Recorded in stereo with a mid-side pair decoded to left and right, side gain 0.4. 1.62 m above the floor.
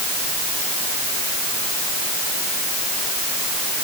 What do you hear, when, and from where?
Only background noise.